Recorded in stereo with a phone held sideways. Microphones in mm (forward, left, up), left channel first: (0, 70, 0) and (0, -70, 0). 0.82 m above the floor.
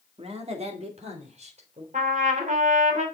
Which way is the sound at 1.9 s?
65° right (ahead or behind).